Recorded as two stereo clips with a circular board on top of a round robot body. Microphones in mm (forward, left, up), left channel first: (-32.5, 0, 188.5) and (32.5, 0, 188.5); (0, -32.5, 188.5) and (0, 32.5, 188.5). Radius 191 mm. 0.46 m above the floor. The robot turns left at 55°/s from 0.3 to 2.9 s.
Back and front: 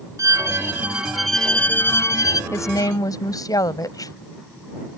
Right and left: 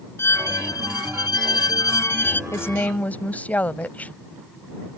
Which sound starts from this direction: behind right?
A woman speaking, at 2.5 s.